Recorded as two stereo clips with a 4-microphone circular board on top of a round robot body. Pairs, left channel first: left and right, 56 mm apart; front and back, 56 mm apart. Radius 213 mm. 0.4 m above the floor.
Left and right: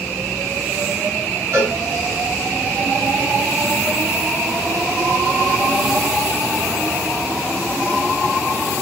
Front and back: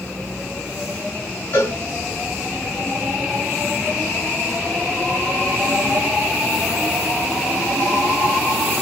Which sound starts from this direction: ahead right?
A cowbell, at 1.5 s.